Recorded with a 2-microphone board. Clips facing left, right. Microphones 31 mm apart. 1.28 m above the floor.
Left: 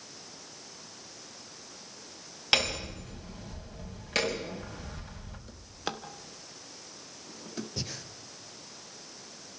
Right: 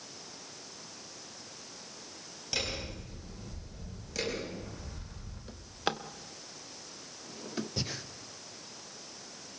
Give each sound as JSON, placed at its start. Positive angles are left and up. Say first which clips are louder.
{"t": 2.5, "sound": "hammering", "louder": "left 8 dB", "side_deg": 60, "distance_m": 5.5}
{"t": 5.5, "sound": "a drawer", "louder": "right 3 dB", "side_deg": -15, "distance_m": 1.3}
{"t": 7.8, "sound": "breathing", "louder": "right 2 dB", "side_deg": -10, "distance_m": 1.1}